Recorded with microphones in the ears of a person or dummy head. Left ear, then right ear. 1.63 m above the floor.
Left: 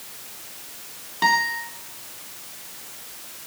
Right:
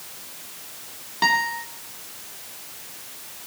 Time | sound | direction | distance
1.2 | a guitar | 5° right (ahead or behind) | 2.5 m